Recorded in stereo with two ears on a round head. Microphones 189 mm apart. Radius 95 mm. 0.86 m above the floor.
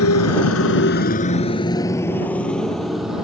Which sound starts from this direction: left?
A motorcycle, at 0.0 s.